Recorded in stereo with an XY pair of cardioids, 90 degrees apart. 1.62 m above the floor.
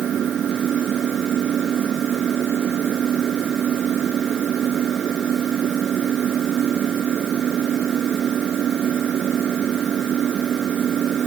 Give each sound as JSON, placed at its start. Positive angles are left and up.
{"t": 0.0, "sound": "an engine running", "azimuth_deg": -65}